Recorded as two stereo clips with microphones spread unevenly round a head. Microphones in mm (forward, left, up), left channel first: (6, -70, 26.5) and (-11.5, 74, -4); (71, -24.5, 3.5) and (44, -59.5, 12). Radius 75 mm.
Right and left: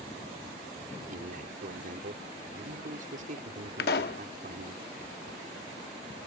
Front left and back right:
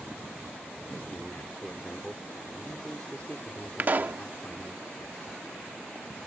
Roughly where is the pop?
Right.